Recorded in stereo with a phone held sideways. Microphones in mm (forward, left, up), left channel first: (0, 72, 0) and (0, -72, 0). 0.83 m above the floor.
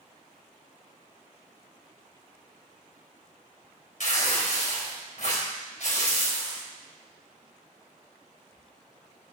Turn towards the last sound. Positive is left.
turn(degrees=65)  # may be behind; listen again after turning